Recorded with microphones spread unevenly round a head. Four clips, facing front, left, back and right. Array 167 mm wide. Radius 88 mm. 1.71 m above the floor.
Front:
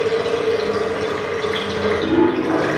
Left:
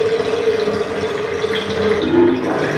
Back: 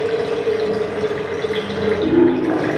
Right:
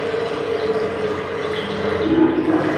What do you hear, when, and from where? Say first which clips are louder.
0.0 s running water: left 6 dB, front 1 dB; 90° left, 9.5 m